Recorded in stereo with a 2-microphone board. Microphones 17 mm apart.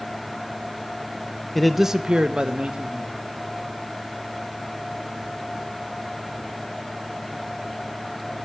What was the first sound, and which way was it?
A man speaking, 15° left (ahead or behind).